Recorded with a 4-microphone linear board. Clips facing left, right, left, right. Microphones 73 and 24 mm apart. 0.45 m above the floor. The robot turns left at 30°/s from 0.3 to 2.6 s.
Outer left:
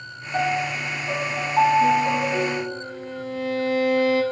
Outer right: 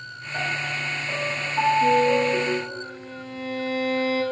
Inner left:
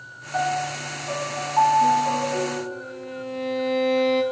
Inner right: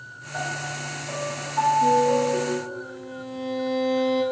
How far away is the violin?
About 2.5 m.